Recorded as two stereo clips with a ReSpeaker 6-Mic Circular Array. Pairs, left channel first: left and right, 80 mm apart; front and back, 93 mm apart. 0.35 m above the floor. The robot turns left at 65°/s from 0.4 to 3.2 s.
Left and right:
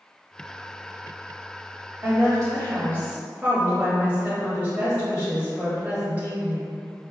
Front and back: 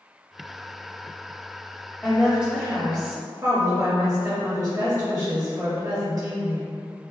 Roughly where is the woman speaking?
Right.